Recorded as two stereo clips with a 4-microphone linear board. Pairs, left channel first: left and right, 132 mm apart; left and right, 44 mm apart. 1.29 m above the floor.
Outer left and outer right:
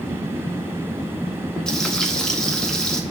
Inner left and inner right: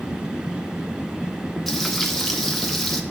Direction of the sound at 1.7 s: 5° left (ahead or behind).